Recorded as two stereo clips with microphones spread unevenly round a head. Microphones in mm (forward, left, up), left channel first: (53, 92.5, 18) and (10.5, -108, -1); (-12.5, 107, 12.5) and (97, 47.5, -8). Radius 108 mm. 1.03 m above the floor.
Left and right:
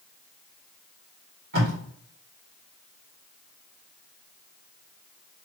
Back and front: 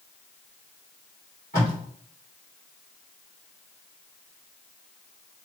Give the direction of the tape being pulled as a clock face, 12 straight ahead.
5 o'clock.